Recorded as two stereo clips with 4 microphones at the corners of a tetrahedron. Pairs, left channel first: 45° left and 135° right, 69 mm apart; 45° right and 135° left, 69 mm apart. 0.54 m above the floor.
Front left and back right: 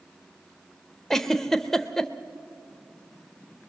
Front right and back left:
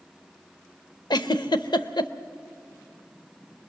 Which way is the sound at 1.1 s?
40° right.